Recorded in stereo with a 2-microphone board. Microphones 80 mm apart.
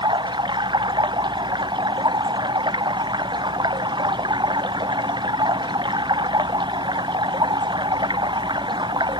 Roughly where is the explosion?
I don't hear an explosion.